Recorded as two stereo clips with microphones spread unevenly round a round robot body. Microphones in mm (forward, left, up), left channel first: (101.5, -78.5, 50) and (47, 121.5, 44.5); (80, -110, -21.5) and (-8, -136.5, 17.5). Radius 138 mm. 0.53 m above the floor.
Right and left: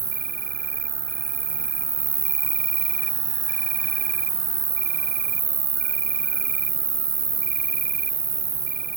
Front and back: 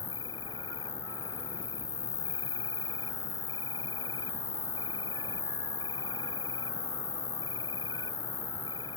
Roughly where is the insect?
Ahead left.